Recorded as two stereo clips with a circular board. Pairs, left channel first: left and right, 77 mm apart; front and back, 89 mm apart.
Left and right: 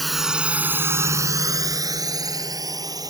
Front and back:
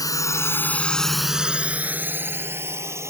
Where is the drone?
Straight ahead; by 3.1 s 125° right.